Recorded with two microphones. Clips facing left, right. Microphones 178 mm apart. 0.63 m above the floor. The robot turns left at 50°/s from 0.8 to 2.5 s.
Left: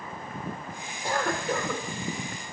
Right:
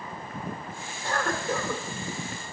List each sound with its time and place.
1.0 s a cough: 20° left, 1.6 m; by 1.8 s 20° right, 1.6 m